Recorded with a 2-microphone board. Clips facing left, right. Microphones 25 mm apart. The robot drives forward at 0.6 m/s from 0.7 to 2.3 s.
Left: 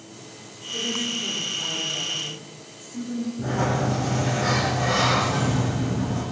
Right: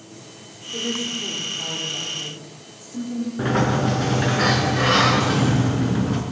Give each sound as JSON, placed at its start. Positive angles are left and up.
{"t": 0.7, "sound": "a woman speaking", "side_deg": -20, "distance_m": 8.5}
{"t": 3.4, "sound": "a sliding door", "side_deg": -80, "distance_m": 4.5}